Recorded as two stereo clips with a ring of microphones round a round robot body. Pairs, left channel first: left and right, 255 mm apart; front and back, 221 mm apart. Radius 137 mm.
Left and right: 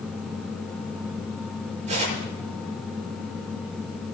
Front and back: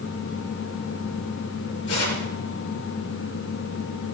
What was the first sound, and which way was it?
Tearing paper, 25° right.